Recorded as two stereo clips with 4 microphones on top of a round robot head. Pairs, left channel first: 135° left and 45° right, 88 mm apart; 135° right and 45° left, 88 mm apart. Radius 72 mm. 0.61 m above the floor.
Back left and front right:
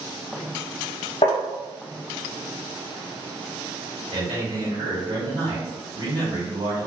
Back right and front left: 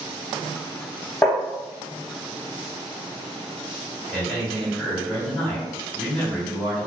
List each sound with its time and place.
1.2 s tapping: 160° left, 0.6 m
4.1 s a man speaking: 60° right, 1.6 m